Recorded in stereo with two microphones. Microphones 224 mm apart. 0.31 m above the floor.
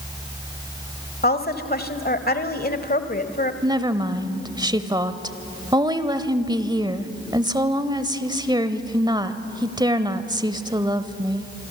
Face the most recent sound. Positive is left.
turn(degrees=-20)  # may be behind; listen again after turning